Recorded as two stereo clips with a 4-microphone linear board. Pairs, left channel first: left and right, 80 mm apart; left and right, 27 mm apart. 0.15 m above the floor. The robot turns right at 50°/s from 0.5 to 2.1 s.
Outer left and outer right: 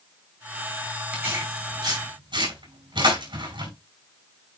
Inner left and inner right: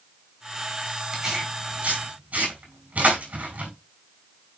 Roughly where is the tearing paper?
Right.